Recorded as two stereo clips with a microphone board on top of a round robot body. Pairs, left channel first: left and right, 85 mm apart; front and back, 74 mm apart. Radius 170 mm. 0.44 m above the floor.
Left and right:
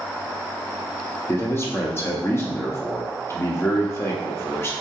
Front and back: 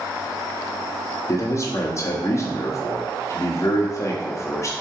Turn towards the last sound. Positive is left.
turn(degrees=35)